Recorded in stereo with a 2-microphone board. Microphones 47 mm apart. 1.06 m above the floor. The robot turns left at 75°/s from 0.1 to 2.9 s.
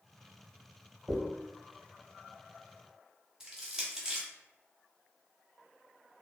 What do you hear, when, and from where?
1.1 s a dropped coin: 10° right (ahead or behind), 1.4 m; by 1.2 s 5° right (ahead or behind), 1.4 m
3.4 s crushing: 15° right (ahead or behind), 0.8 m